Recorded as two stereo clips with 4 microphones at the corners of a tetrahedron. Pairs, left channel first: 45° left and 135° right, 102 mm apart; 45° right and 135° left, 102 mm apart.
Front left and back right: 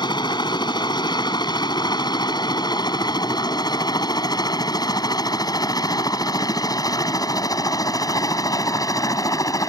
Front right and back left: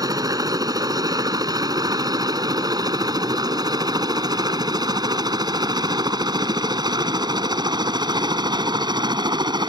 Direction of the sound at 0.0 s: 85° left.